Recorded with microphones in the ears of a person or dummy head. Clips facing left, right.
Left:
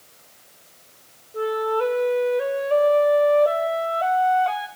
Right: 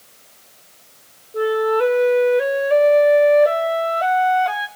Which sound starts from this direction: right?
A flute, at 1.3 s.